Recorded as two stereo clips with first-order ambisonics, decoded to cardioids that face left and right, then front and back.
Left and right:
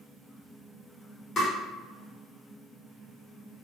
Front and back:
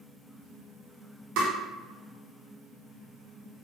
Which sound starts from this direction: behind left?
Tapping, at 1.4 s.